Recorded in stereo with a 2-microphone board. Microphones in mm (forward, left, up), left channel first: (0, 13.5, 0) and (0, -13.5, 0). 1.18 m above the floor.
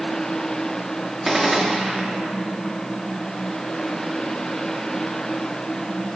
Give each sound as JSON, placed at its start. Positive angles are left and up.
{"t": 1.2, "sound": "a gunshot", "side_deg": -10, "distance_m": 1.0}